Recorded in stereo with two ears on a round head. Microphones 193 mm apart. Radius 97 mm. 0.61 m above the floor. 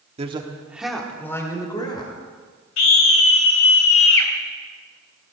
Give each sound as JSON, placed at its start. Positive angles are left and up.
{"t": 0.2, "sound": "a man speaking", "side_deg": -30, "distance_m": 1.5}
{"t": 2.8, "sound": "a scream", "side_deg": 70, "distance_m": 2.5}